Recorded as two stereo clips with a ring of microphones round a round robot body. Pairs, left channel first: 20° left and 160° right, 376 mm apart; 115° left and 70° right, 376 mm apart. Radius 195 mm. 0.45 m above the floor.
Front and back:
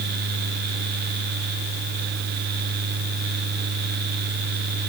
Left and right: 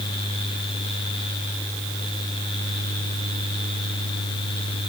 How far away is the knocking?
No knocking in this recording.